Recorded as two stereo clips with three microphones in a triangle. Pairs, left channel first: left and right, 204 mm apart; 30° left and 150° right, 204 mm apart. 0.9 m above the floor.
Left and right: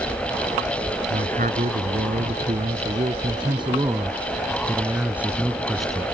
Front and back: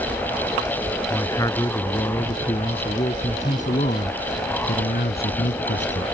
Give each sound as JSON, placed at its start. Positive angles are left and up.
{"t": 1.1, "sound": "a man speaking", "azimuth_deg": -45}